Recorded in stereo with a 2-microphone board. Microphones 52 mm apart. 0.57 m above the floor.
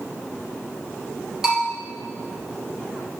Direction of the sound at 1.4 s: 10° right (ahead or behind).